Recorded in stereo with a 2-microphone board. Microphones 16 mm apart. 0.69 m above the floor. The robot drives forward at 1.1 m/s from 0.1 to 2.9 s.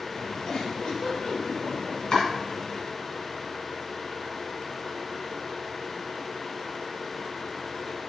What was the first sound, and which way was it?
A giggle, 80° left.